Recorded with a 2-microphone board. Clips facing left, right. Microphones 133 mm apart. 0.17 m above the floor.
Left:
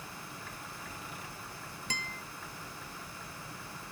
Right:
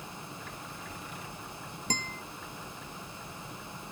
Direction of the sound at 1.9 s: 40° right (ahead or behind).